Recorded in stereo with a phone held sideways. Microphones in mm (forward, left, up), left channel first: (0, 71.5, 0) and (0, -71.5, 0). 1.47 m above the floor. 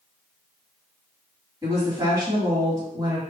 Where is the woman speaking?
25° right (ahead or behind), 2 m.